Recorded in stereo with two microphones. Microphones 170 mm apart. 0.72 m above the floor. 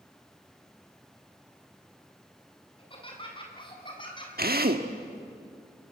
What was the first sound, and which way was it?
Laughter, 30° left (ahead or behind).